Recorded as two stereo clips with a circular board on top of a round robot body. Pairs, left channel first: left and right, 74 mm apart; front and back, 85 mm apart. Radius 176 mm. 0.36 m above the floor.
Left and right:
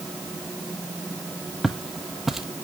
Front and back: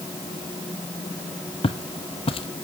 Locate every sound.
1.6 s footsteps: straight ahead, 0.9 m